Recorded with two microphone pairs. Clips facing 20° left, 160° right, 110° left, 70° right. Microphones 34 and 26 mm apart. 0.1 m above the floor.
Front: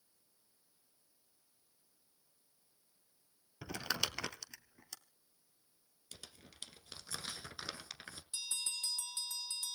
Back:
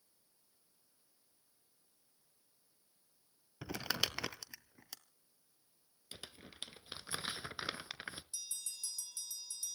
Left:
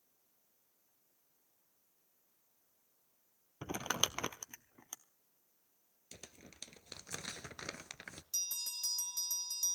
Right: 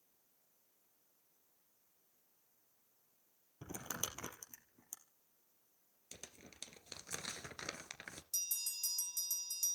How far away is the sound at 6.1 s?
About 0.9 m.